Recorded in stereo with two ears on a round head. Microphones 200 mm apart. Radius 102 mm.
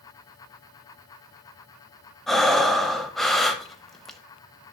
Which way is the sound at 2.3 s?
Centre (ahead or behind).